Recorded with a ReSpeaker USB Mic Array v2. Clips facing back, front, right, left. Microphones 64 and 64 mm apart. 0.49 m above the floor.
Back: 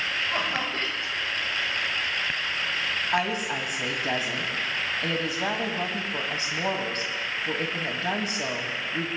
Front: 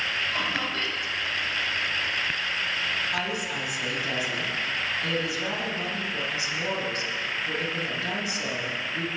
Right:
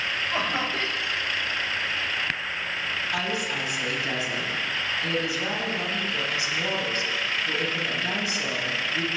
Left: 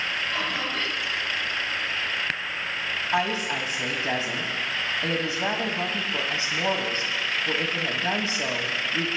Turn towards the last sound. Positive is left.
turn(degrees=140)